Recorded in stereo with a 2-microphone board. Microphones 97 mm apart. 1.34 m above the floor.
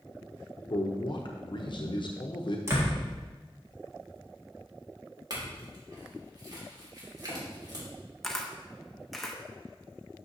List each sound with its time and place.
0.7 s a man speaking: 55° left (ahead or behind), 0.7 m
2.7 s a door slam: 30° right (ahead or behind), 1.7 m
5.3 s a clink: 45° right (ahead or behind), 2.5 m
8.2 s a camera shutter: 5° left (ahead or behind), 0.8 m